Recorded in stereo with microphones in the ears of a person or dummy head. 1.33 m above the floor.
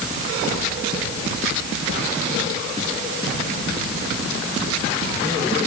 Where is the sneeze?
I don't hear a sneeze.